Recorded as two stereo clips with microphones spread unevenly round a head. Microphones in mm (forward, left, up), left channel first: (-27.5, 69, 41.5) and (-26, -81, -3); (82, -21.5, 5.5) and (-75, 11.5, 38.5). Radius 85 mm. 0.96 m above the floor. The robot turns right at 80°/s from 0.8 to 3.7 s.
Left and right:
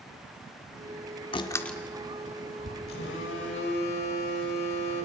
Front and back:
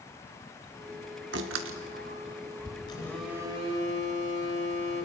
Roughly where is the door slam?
Behind left.